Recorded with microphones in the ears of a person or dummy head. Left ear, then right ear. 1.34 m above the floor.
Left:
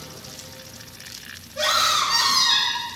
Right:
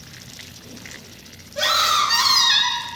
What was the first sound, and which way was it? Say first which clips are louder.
A scream: right 2 dB; 10° right (ahead or behind).